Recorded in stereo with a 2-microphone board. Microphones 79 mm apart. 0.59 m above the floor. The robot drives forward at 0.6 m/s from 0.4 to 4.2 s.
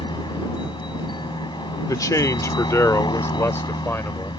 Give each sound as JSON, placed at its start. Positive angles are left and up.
{"t": 0.0, "sound": "a helicopter", "side_deg": 75}
{"t": 1.9, "sound": "a man speaking", "side_deg": 50}